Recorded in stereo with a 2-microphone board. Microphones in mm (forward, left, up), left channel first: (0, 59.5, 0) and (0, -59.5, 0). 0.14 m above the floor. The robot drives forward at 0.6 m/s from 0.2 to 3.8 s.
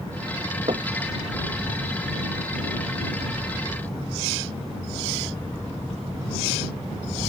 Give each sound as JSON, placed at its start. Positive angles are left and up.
{"t": 0.7, "sound": "knocking", "side_deg": -55}